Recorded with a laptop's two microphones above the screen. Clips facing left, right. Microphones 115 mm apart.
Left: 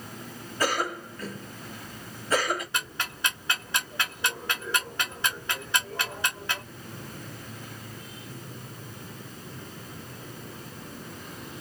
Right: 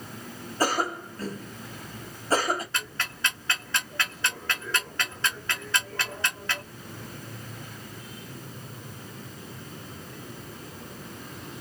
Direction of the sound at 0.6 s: 35° right (ahead or behind).